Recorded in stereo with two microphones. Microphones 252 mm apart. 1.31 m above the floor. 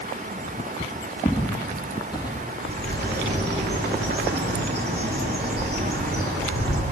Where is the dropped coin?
I don't hear a dropped coin.